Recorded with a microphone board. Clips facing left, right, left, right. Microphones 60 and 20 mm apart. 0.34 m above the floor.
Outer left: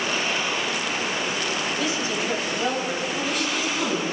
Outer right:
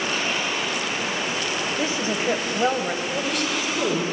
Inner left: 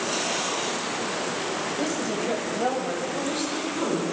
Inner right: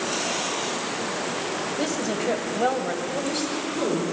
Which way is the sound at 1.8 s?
35° right (ahead or behind).